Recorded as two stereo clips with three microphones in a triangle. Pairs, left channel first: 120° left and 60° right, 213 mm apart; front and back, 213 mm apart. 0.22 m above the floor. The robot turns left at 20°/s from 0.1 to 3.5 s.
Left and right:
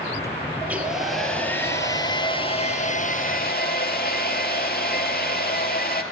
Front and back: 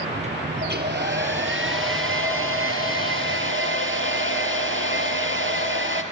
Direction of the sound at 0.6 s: 140° right.